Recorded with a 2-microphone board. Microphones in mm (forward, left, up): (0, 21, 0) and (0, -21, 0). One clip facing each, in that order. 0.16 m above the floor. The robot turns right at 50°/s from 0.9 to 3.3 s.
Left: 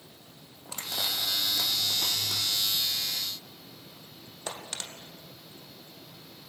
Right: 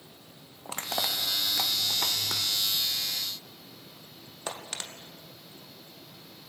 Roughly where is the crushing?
Right.